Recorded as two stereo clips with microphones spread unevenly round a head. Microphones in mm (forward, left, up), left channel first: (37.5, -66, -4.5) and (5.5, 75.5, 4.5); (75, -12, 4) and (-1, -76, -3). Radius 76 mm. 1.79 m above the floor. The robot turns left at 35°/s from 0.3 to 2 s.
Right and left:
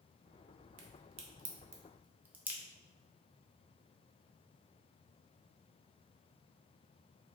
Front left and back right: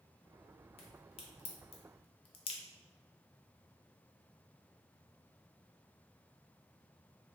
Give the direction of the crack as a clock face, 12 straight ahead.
10 o'clock.